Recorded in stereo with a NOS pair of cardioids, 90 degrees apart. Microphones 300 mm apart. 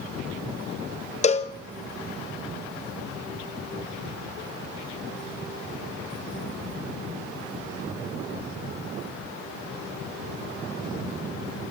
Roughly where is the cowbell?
Ahead left.